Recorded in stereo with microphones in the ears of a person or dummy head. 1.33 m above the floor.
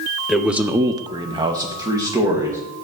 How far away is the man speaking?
About 0.6 m.